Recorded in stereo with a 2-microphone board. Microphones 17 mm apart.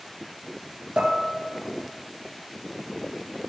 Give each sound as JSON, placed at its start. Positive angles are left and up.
{"t": 1.0, "sound": "dishes clattering", "side_deg": -75, "distance_m": 3.0}